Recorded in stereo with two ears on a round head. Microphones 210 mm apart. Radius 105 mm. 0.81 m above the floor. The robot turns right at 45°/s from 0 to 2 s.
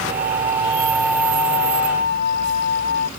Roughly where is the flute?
Ahead right.